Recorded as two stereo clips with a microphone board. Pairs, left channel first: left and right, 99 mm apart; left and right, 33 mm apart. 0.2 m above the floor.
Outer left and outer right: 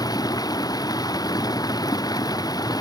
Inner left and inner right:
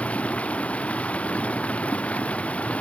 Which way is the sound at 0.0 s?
40° left (ahead or behind).